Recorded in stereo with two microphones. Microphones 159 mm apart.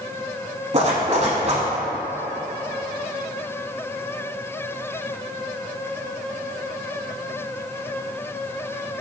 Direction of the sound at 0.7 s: 45° right (ahead or behind).